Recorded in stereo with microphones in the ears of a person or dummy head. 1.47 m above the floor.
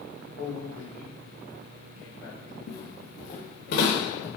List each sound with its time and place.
0.4 s a man speaking: 40° left (ahead or behind), 3.5 m
2.7 s footsteps: 55° left (ahead or behind), 3 m; by 4.3 s 70° left (ahead or behind), 4 m